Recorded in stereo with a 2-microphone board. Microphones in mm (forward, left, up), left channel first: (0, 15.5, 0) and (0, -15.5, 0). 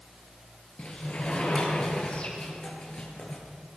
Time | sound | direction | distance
0.8 | a sliding door | 45° left (ahead or behind) | 6.5 m